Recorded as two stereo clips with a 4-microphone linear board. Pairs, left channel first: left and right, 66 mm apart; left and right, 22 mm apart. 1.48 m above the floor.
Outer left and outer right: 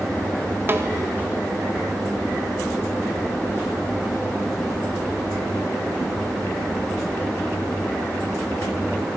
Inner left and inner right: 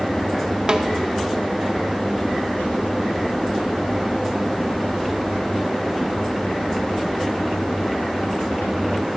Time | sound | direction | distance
0.7 | a snare drum | 35° right (ahead or behind) | 0.5 m